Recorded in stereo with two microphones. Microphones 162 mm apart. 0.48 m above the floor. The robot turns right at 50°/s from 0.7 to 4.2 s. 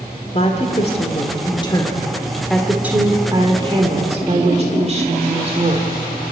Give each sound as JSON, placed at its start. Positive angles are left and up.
{"t": 0.3, "sound": "a woman speaking", "azimuth_deg": 90, "distance_m": 1.7}